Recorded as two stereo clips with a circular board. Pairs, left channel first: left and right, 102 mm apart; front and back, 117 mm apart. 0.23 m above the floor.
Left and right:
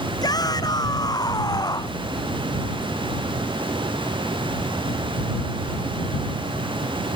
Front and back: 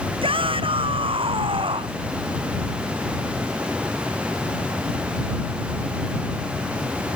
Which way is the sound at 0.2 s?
140° left.